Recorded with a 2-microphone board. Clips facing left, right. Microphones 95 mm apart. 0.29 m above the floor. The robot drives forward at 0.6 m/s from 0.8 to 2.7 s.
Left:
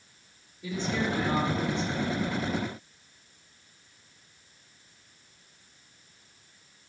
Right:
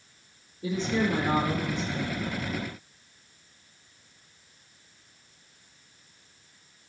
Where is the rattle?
I don't hear a rattle.